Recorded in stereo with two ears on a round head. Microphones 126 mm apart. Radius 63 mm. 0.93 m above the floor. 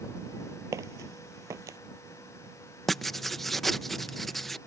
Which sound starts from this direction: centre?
Writing, at 2.9 s.